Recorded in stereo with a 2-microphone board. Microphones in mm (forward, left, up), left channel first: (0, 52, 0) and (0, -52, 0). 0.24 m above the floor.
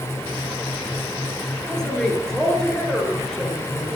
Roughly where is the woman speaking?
Centre.